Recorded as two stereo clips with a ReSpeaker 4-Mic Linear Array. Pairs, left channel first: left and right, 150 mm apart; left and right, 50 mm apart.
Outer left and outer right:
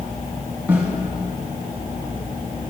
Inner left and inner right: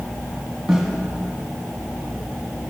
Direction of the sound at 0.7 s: 10° right (ahead or behind).